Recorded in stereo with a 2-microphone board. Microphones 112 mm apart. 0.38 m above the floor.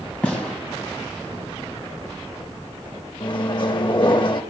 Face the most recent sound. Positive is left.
turn(degrees=45)  # may be behind; listen again after turning